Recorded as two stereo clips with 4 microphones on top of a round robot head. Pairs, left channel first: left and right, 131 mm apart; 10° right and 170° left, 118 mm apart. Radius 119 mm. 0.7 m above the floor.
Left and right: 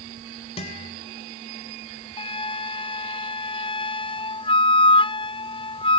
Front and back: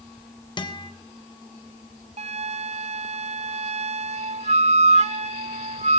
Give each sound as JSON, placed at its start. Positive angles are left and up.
{"t": 0.6, "sound": "a guitar", "azimuth_deg": 40, "distance_m": 3.5}
{"t": 2.2, "sound": "a flute", "azimuth_deg": 140, "distance_m": 0.7}